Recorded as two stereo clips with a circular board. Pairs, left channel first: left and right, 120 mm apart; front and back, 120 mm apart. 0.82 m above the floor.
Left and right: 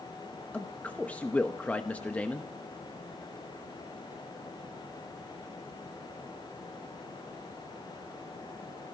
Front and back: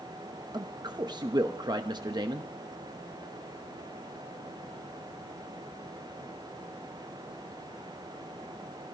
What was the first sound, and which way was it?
A man speaking, 160° left.